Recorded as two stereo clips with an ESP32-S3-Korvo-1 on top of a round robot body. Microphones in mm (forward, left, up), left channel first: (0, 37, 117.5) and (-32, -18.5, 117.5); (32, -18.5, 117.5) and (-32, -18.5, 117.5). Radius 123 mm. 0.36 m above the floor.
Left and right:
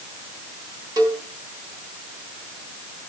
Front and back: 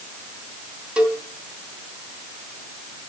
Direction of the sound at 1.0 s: 105° right.